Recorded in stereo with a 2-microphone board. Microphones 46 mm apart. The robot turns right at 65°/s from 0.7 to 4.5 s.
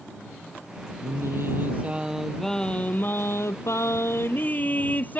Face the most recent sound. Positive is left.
turn(degrees=145)